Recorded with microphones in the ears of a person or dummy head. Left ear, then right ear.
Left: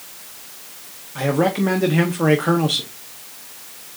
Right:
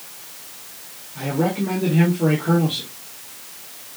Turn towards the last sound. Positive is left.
turn(degrees=50)  # may be behind; listen again after turning